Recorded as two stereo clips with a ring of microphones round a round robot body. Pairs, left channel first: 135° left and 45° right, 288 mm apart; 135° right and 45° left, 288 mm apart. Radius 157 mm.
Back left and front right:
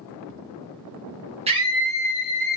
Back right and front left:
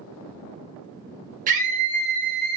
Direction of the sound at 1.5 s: 5° left.